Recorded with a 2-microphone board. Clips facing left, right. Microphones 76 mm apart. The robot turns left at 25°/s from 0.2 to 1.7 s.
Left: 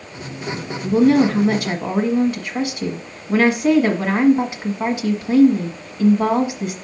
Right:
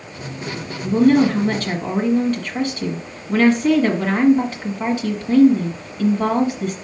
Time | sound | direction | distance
0.8 | a woman speaking | 5° left (ahead or behind) | 1.5 m